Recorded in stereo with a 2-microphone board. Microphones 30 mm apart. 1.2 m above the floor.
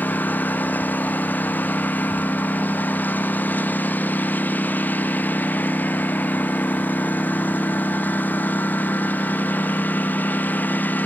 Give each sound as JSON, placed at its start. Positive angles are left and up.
{"t": 0.0, "sound": "a lawn mower", "side_deg": 70}